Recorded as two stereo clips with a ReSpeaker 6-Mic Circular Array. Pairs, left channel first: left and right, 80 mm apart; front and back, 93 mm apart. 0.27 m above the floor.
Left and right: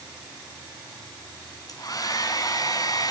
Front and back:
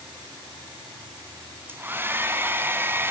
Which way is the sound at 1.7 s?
115° left.